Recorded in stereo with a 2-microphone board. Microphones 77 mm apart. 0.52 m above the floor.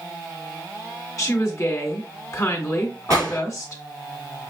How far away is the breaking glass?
I don't hear breaking glass.